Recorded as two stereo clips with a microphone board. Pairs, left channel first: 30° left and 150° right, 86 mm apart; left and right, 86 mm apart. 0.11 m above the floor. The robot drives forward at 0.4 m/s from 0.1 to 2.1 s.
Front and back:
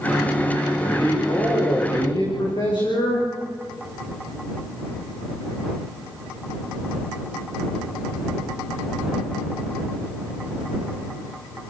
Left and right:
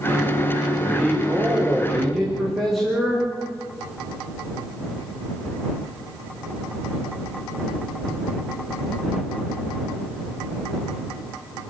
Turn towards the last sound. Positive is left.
turn(degrees=0)